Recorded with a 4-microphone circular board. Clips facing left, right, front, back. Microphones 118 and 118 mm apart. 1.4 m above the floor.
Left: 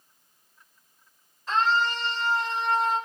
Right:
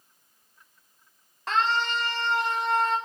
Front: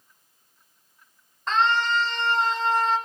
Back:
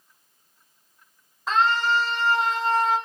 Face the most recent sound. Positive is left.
turn(degrees=-100)